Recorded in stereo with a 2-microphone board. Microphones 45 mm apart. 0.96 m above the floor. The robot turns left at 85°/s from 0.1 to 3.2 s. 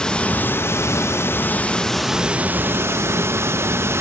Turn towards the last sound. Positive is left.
turn(degrees=-100)